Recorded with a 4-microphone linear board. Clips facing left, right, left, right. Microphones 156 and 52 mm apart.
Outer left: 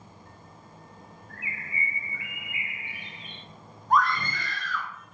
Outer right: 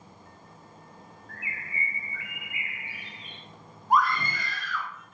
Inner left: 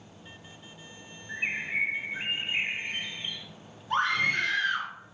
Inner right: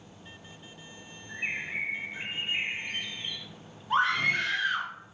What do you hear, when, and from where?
1.3 s a bird: 25° left (ahead or behind), 1.9 m
3.9 s a scream: 10° right (ahead or behind), 4.5 m